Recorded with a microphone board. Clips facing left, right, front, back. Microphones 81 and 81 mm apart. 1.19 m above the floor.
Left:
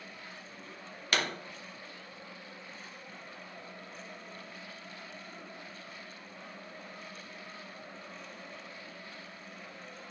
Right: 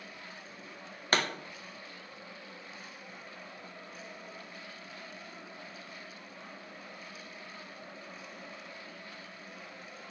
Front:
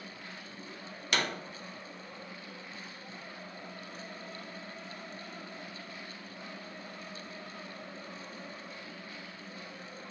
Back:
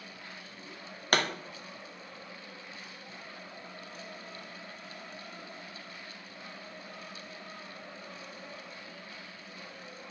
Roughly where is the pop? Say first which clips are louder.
Right 2 dB, back 4 dB; behind right.